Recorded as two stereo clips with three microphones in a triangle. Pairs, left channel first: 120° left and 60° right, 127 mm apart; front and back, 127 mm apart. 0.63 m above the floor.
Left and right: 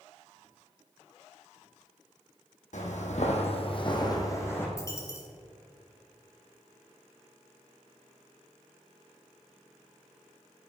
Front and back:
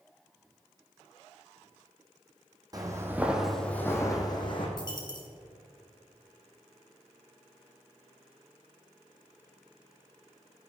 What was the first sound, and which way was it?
Footsteps, 120° left.